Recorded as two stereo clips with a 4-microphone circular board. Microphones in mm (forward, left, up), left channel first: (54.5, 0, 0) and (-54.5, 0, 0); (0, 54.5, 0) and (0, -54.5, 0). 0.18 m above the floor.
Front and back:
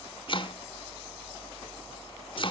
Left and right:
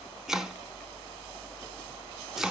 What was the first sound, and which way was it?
Chopping, 5° right.